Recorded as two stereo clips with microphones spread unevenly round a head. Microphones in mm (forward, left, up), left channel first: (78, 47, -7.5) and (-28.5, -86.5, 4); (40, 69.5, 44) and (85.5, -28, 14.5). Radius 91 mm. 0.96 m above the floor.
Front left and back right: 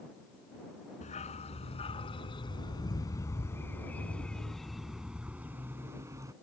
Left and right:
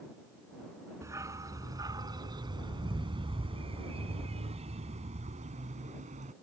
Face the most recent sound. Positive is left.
turn(degrees=-60)